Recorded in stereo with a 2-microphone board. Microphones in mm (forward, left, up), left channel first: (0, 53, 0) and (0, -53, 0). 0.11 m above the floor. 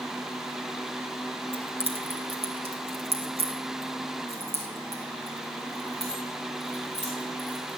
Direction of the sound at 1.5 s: 65° right (ahead or behind).